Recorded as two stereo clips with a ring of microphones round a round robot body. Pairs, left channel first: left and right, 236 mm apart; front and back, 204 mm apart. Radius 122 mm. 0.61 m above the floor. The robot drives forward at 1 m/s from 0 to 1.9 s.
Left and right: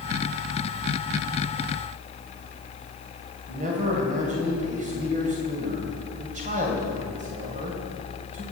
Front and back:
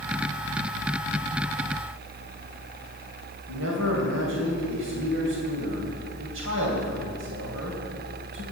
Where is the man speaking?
150° right, 2.5 m.